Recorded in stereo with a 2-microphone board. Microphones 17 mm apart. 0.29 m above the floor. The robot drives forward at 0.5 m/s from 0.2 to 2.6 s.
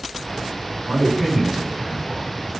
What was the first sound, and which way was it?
A man speaking, 10° right (ahead or behind).